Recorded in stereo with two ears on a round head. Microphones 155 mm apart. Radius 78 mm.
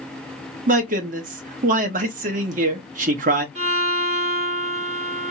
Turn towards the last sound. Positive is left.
turn(degrees=-40)  # may be behind; listen again after turning